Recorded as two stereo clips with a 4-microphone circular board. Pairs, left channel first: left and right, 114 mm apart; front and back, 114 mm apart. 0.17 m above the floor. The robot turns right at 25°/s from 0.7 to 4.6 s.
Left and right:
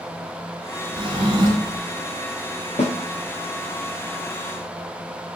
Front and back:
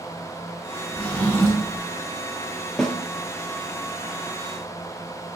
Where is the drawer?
75° right, 0.6 m; by 1.9 s 50° right, 0.6 m.